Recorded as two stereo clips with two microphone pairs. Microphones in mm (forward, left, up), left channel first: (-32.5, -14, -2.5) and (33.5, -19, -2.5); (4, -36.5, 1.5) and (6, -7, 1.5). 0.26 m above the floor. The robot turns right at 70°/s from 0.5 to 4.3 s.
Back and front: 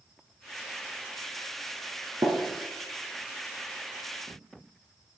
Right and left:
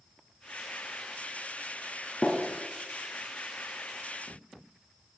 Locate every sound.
2.2 s tapping: 15° right, 2.5 m; by 2.4 s 5° right, 2.5 m